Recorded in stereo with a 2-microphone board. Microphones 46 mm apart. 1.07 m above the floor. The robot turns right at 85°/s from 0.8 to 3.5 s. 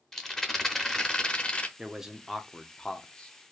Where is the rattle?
25° left, 0.8 m; by 1.7 s 100° left, 0.8 m.